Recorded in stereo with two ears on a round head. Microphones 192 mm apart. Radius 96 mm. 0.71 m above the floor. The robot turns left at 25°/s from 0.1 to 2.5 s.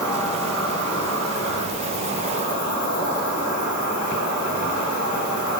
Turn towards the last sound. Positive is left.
turn(degrees=100)